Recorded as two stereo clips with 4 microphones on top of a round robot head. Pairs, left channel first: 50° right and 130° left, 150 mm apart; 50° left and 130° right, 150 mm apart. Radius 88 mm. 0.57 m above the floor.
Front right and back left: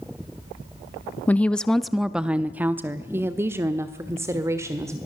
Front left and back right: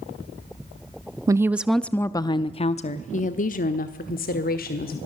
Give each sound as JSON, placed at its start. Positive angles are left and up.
{"t": 1.3, "sound": "a woman speaking", "azimuth_deg": -110, "distance_m": 0.6}